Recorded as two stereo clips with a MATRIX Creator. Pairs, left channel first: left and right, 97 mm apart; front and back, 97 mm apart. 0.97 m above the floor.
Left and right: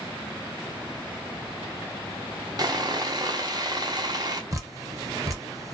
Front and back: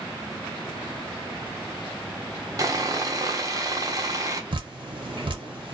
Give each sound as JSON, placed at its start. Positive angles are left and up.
{"t": 2.6, "sound": "sawing", "azimuth_deg": -130, "distance_m": 0.5}
{"t": 4.5, "sound": "dripping", "azimuth_deg": -145, "distance_m": 0.7}